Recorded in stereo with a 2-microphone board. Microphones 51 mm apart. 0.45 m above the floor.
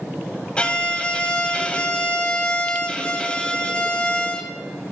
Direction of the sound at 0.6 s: 20° left (ahead or behind).